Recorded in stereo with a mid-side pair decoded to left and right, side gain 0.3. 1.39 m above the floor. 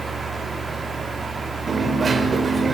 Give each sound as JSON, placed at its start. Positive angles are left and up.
{"t": 0.0, "sound": "a fan", "azimuth_deg": -40, "distance_m": 6.0}
{"t": 1.7, "sound": "a dropped coin", "azimuth_deg": -55, "distance_m": 3.0}